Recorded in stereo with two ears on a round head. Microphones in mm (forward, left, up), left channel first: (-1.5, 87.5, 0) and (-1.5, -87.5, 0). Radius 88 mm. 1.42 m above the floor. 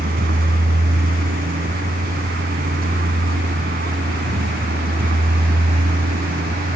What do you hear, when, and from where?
0.0 s a vehicle: 50° right (ahead or behind)